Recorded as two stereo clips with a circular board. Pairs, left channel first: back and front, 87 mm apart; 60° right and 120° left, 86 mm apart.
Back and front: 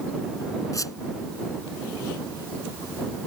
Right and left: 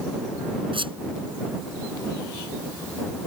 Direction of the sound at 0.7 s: 130° left.